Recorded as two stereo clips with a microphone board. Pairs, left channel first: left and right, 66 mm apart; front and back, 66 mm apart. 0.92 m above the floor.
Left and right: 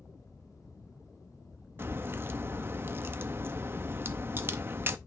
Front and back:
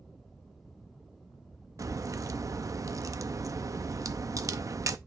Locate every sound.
1.8 s a crack: 140° right, 0.5 m